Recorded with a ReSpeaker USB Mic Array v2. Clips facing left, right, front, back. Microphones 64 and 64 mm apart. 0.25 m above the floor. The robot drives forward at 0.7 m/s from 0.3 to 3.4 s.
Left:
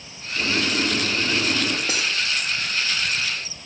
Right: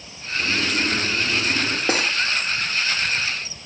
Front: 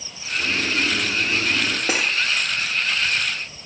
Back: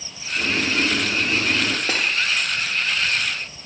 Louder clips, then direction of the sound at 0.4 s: Even, back 1 dB; 130° left.